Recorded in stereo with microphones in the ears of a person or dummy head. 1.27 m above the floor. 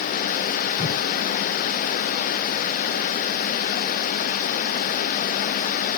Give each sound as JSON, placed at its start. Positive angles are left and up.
{"t": 0.8, "sound": "a whoosh", "side_deg": 40, "distance_m": 1.7}